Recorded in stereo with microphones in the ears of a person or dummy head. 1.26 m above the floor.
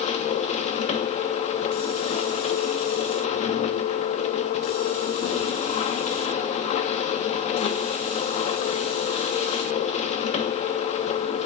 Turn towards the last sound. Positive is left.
turn(degrees=30)  # may be behind; listen again after turning